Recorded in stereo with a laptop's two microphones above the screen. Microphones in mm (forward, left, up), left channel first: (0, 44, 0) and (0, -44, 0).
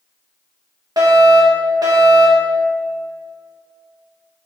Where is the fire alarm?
50° right (ahead or behind), 2.5 m.